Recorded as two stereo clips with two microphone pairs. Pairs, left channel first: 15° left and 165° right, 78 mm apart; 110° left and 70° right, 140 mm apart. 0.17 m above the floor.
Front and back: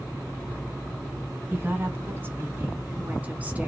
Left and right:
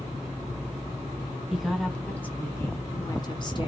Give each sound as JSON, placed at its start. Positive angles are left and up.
{"t": 1.5, "sound": "a woman speaking", "azimuth_deg": -150, "distance_m": 1.8}